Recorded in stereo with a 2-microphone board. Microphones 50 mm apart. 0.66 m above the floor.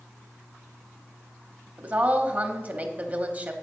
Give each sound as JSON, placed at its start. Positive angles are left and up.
{"t": 1.8, "sound": "a woman speaking", "side_deg": -30, "distance_m": 0.9}